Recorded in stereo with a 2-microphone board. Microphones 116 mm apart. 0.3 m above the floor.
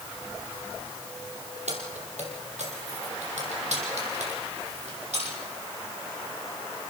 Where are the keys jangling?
80° right, 5.5 m; by 5.3 s 75° right (ahead or behind), 7.5 m.